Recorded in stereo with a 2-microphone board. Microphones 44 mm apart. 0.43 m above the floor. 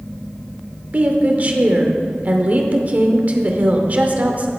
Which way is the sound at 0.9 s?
35° right (ahead or behind).